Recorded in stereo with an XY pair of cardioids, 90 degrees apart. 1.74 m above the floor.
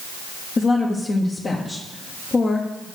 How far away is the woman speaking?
About 1.2 m.